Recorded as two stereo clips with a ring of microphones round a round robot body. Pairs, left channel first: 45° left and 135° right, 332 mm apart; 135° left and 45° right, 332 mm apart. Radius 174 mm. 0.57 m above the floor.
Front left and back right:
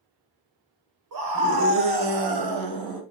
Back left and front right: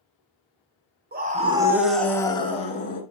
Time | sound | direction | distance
1.1 | a scream | 105° right | 2.5 m